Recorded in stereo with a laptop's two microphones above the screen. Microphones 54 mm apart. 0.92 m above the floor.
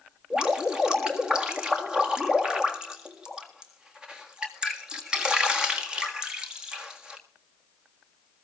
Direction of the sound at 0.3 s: 15° right (ahead or behind).